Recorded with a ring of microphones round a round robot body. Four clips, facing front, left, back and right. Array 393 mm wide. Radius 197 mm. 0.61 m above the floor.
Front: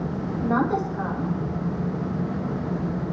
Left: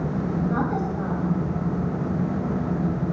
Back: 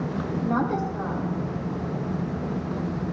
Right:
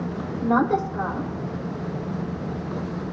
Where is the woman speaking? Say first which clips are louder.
Right 7 dB, front 3 dB; 80° right, 2.5 m.